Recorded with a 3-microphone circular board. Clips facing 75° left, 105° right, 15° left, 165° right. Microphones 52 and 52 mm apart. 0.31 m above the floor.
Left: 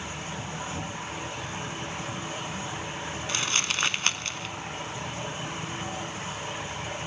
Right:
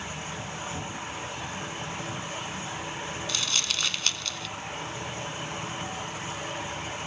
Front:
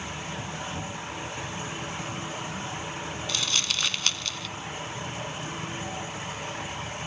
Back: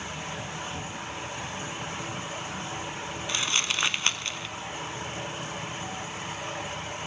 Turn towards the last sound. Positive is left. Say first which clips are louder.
# left 4 dB, back 2 dB
turn(degrees=130)